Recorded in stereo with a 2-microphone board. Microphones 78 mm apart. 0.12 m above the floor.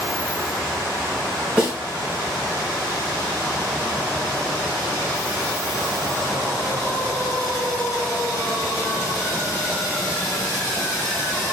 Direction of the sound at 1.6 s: 10° right (ahead or behind).